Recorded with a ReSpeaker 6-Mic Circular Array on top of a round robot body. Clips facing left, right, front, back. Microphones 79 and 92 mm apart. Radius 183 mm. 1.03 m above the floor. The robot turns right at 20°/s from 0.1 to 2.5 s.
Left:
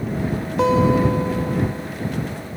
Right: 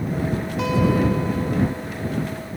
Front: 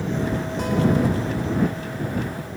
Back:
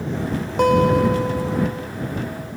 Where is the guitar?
145° left; by 1.9 s 175° left.